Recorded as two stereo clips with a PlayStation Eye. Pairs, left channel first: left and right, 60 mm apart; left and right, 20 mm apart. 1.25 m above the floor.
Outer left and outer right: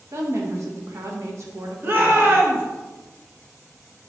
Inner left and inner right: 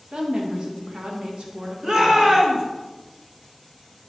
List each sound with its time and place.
0.1 s a woman speaking: 55° right (ahead or behind), 1.3 m
1.8 s a shout: 40° right (ahead or behind), 1.5 m